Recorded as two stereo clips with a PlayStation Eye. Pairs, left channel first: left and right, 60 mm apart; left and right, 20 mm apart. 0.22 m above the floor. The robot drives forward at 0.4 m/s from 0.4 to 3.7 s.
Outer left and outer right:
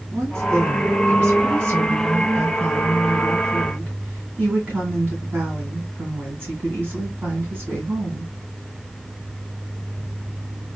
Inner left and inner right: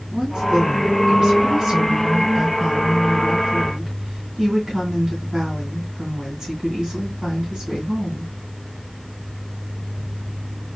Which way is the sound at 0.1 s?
35° right (ahead or behind).